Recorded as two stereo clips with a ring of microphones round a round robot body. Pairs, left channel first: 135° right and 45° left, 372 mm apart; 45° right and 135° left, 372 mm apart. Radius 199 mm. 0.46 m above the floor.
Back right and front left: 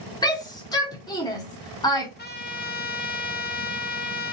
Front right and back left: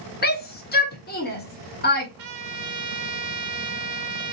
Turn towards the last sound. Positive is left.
turn(degrees=160)